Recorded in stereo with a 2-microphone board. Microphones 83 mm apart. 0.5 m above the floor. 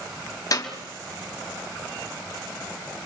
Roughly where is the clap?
Left.